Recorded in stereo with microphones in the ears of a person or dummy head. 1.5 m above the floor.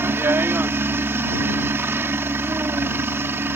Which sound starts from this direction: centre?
A helicopter, at 0.0 s.